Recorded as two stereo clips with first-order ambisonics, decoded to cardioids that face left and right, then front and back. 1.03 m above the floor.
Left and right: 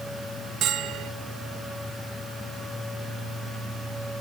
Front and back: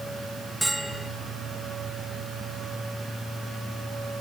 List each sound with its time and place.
0.6 s a bell: 95° right, 0.7 m